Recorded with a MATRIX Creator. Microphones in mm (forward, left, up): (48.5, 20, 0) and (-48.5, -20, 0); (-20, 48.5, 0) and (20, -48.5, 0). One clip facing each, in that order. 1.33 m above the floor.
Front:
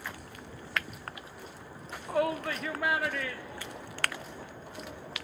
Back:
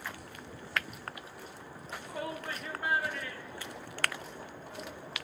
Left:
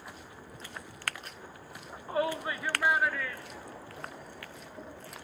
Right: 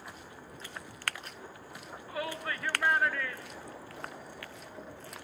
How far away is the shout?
About 0.8 m.